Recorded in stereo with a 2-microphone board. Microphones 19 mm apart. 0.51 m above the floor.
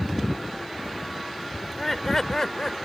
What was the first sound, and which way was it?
Laughter, 5° left (ahead or behind).